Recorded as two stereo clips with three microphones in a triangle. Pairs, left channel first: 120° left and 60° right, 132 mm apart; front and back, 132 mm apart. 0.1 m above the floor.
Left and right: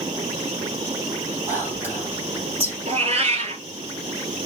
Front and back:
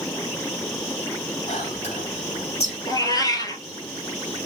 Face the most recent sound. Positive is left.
turn(degrees=-55)